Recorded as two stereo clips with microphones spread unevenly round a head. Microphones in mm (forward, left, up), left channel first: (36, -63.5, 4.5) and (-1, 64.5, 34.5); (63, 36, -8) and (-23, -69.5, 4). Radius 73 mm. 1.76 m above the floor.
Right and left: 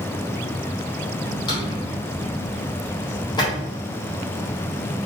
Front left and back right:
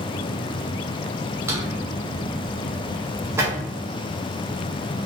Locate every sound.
1.5 s a drawer: 125° right, 1.0 m